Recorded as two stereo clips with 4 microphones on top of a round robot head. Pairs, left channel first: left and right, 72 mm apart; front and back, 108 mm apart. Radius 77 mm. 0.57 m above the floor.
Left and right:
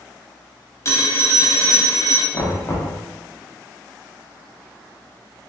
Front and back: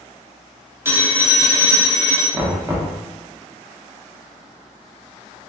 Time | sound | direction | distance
0.8 | a phone ringing | 120° left | 0.8 m
2.3 | knocking | 115° left | 0.7 m